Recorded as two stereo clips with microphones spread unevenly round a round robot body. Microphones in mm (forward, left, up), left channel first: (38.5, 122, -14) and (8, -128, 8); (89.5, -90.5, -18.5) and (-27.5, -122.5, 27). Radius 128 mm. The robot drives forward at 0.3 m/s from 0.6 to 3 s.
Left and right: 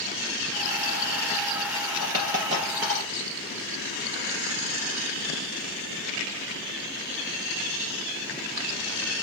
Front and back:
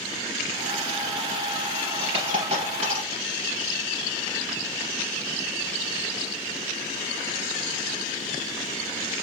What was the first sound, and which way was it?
A dropped coin, 170° right.